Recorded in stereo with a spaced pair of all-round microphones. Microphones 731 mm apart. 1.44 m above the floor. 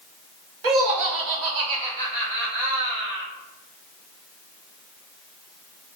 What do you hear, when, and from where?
0.6 s laughter: 60° right (ahead or behind), 0.9 m; by 3.3 s 25° right (ahead or behind), 1.6 m